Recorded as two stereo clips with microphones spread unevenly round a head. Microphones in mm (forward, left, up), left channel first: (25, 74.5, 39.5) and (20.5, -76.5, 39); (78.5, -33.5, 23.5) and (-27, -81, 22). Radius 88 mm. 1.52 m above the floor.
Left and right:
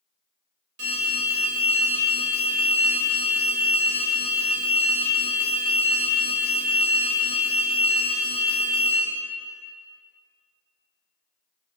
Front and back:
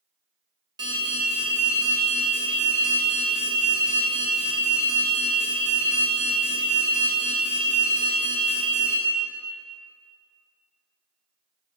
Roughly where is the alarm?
Right.